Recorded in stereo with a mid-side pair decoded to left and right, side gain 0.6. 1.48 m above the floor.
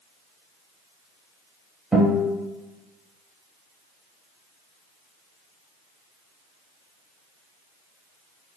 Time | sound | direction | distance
1.9 | a guitar | 10° right | 1.2 m